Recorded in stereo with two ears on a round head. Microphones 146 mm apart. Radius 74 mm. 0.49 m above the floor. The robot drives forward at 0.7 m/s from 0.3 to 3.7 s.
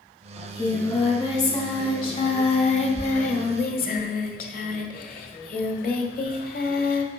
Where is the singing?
20° left (ahead or behind), 3 m; by 7.1 s 60° left (ahead or behind), 1.3 m.